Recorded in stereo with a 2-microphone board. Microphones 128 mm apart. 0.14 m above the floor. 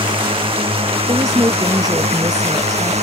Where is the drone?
45° right (ahead or behind); by 3.0 s 60° right (ahead or behind).